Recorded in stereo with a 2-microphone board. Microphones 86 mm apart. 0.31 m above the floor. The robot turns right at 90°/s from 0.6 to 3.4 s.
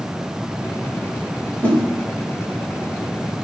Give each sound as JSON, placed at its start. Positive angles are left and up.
{"t": 1.6, "sound": "a whoosh", "side_deg": 20, "distance_m": 1.5}